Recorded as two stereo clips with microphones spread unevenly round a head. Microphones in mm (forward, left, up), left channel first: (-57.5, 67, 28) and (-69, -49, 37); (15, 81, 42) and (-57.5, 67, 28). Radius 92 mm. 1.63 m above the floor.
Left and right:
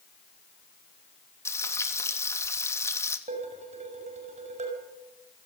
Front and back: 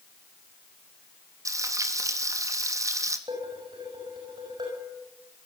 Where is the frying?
150° left, 3 m.